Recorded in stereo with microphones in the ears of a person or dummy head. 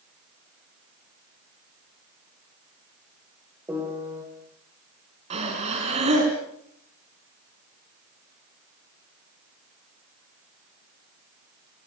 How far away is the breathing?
About 5 m.